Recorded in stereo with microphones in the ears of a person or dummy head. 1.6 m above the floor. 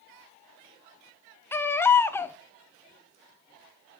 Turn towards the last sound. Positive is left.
turn(degrees=15)  # may be behind; listen again after turning